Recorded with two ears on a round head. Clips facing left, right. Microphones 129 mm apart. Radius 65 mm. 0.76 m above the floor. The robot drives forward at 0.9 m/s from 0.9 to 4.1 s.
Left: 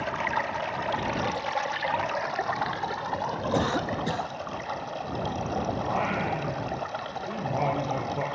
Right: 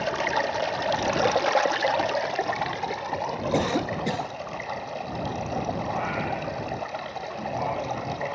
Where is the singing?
70° left (ahead or behind), 8 m.